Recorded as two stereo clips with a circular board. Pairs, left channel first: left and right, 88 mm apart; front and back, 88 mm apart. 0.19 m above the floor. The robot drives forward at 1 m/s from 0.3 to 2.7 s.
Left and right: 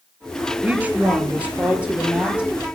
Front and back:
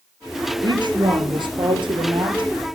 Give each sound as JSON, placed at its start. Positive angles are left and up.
{"t": 0.6, "sound": "a woman speaking", "azimuth_deg": -160, "distance_m": 4.0}